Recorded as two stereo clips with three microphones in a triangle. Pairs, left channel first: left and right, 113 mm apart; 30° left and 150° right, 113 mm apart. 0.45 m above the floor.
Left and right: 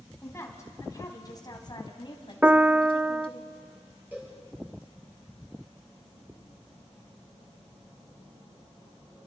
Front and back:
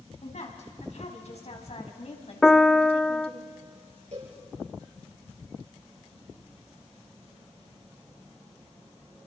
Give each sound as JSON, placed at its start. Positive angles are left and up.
{"t": 0.2, "sound": "a woman speaking", "azimuth_deg": 25, "distance_m": 3.5}
{"t": 2.4, "sound": "a piano", "azimuth_deg": -45, "distance_m": 0.5}
{"t": 4.1, "sound": "a cowbell", "azimuth_deg": -165, "distance_m": 8.0}